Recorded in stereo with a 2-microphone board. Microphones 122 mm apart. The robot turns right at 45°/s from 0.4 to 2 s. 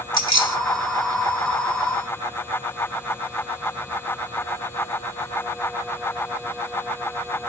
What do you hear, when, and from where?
0.1 s keys jangling: 35° right (ahead or behind), 0.9 m